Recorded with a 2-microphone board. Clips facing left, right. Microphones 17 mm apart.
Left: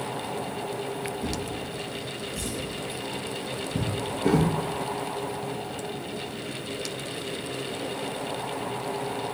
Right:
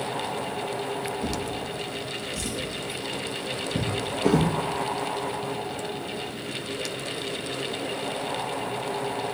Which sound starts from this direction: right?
A drawer, at 1.2 s.